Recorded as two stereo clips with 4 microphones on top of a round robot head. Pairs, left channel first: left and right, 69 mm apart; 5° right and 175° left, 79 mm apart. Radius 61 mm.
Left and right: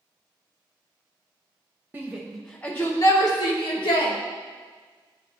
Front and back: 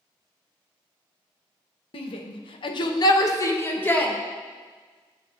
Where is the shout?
20° right, 0.8 m; by 4.1 s 65° left, 1.2 m.